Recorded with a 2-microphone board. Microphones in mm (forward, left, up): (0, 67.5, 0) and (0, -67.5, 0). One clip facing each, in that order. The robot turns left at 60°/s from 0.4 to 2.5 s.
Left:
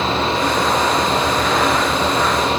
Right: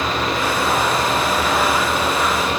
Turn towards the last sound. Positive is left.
No sound to turn to.